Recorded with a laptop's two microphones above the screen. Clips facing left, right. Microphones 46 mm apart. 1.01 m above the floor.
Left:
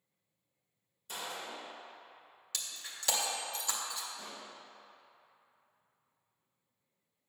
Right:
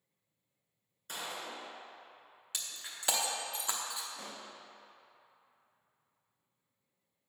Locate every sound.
1.1 s a gunshot: 60° right (ahead or behind), 2.5 m
2.5 s breaking glass: 20° right (ahead or behind), 0.7 m
4.2 s a pop: 65° right (ahead or behind), 0.9 m